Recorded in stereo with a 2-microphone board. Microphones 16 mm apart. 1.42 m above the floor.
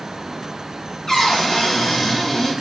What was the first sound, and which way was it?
A cupboard door, 30° left (ahead or behind).